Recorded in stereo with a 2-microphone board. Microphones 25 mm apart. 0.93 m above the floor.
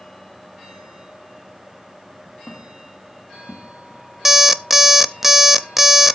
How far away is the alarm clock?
About 0.5 m.